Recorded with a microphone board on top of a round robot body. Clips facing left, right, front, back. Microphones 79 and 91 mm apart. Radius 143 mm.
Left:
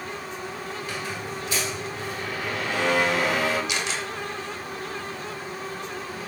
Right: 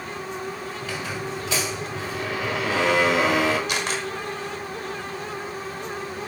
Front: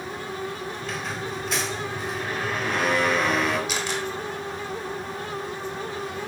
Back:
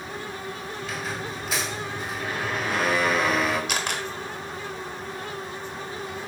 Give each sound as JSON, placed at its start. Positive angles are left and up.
{"t": 0.8, "sound": "a squeak", "azimuth_deg": -95, "distance_m": 1.1}
{"t": 3.7, "sound": "a camera shutter", "azimuth_deg": -140, "distance_m": 1.3}